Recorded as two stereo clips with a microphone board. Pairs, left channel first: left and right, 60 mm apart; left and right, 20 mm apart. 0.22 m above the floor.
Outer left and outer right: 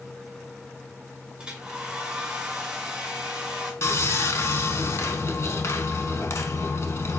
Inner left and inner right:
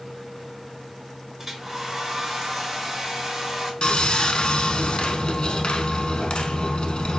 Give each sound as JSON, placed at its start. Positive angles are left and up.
{"t": 1.4, "sound": "a hair dryer", "side_deg": -15, "distance_m": 1.9}
{"t": 3.8, "sound": "sawing", "side_deg": 50, "distance_m": 0.7}